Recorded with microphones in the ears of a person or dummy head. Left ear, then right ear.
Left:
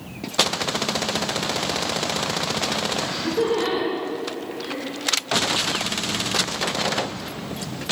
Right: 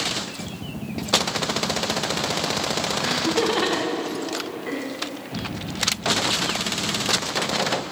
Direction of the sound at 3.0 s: 30° right (ahead or behind).